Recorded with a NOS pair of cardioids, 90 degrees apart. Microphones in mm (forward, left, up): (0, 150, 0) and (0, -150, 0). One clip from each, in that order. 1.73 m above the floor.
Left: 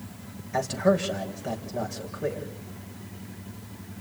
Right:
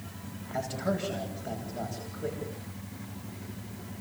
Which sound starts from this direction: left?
A man speaking, at 0.5 s.